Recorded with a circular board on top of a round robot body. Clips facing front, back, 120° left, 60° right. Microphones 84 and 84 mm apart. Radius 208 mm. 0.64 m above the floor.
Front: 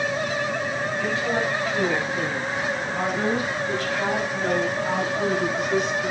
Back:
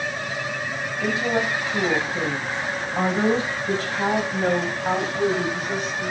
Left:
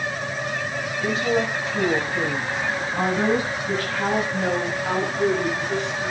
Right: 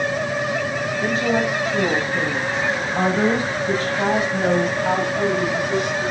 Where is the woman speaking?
105° right, 6 m; by 6.1 s 135° right, 6 m.